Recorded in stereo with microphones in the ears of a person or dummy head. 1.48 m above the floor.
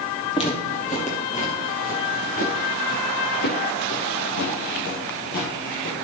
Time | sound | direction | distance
0.3 | footsteps | 30° left (ahead or behind) | 2.5 m